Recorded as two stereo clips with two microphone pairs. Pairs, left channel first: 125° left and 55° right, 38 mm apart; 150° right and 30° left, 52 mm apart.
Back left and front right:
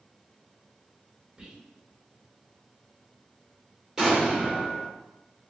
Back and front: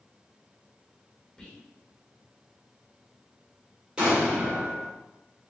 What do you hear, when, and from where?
1.4 s whispering: 85° right, 0.9 m
4.0 s an explosion: 10° right, 1.4 m